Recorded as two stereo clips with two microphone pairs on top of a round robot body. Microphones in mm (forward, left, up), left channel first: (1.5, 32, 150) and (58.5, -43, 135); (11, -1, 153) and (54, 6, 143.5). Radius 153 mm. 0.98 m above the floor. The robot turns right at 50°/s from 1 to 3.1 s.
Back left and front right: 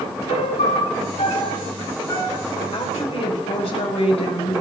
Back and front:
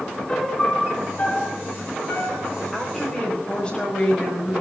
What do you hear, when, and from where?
0.3 s a piano: 125° left, 4 m; by 2.5 s 165° right, 4 m
2.7 s a woman speaking: 100° left, 6 m; by 4.6 s 120° left, 6 m